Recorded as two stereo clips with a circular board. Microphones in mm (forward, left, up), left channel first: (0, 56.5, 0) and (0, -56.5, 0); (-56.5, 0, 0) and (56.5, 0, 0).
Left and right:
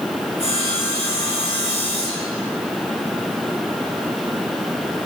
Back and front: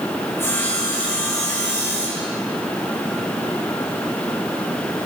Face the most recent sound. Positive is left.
turn(degrees=115)